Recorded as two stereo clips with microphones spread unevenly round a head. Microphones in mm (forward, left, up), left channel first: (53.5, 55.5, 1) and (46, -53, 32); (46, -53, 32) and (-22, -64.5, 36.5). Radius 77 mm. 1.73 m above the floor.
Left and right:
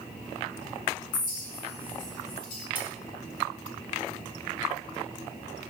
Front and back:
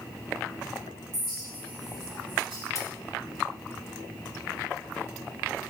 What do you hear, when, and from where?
1.1 s a clink: 120° left, 1.8 m
2.8 s cutlery clinking: 30° right, 2 m